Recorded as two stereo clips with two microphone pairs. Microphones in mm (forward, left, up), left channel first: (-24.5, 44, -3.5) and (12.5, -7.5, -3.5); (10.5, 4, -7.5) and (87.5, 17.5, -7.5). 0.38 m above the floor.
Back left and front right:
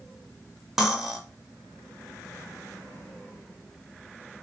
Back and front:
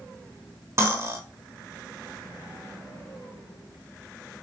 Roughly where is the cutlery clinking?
Ahead left.